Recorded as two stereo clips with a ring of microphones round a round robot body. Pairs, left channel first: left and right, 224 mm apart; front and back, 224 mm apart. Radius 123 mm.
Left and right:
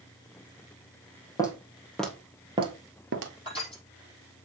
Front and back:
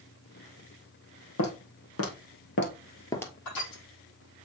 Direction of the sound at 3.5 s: 25° left.